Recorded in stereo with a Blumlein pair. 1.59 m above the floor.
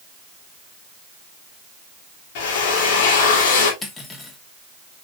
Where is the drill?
50° left, 3 m.